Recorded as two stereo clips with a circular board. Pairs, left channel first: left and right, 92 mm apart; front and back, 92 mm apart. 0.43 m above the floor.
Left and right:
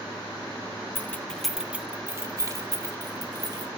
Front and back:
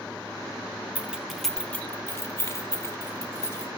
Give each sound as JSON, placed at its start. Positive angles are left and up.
{"t": 0.9, "sound": "keys jangling", "azimuth_deg": 120, "distance_m": 0.7}